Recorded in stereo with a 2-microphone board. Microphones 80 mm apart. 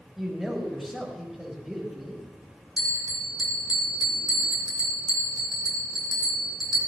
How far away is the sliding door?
No sliding door in this recording.